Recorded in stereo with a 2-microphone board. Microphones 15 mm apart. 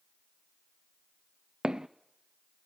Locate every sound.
1.6 s footsteps: 60° right (ahead or behind), 0.6 m